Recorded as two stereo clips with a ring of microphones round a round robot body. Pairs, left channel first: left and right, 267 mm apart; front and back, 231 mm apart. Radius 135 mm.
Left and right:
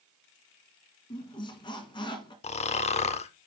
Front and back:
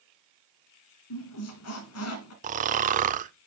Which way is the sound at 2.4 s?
145° left.